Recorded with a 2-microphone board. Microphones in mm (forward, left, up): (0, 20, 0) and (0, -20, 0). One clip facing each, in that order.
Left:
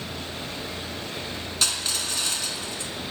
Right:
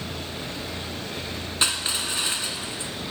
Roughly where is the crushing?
Right.